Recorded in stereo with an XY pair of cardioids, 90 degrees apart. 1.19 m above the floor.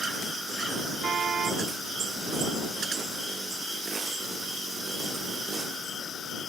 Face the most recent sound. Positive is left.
turn(degrees=-55)